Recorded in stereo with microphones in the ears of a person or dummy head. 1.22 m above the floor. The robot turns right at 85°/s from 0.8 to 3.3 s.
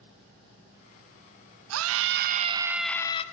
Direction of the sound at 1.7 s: 95° right.